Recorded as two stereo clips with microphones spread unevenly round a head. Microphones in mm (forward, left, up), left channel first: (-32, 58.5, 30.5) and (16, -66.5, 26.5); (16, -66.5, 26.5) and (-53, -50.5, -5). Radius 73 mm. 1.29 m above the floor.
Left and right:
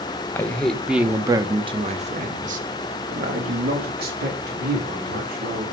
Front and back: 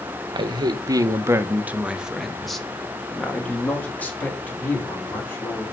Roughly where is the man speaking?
Behind.